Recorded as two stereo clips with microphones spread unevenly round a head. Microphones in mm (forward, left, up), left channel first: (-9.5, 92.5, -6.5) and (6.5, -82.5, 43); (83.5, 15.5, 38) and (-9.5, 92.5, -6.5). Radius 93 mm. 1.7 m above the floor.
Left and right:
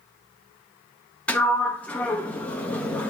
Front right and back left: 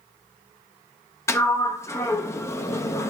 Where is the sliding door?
Straight ahead, 1.3 m.